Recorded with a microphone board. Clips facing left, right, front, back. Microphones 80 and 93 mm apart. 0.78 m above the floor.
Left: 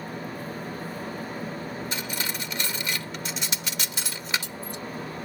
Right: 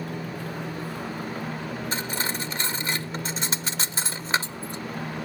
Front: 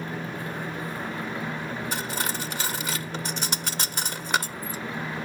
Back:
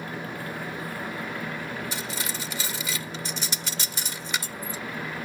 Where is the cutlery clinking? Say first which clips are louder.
Right 3 dB, front 3 dB; 35° right.